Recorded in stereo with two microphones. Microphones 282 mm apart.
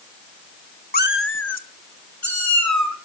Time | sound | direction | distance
0.9 | a cat meowing | 30° left (ahead or behind) | 0.7 m